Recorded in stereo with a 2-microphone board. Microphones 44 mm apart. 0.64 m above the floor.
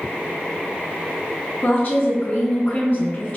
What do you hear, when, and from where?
1.6 s a woman speaking: 45° left (ahead or behind), 1.1 m